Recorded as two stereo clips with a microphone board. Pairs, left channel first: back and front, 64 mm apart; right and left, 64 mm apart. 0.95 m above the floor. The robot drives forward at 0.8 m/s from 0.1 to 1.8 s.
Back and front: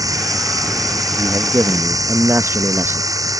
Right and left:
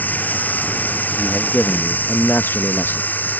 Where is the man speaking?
25° right; by 3.1 s 40° right.